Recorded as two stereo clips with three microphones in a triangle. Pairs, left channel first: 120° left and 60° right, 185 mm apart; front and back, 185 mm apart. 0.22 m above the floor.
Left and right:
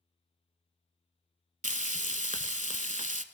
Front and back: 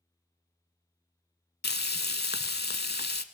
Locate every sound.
1.6 s frying: 20° right, 0.6 m